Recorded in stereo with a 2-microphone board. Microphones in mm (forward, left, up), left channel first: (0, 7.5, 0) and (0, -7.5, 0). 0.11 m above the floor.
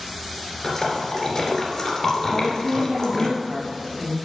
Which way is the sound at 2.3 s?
60° right (ahead or behind).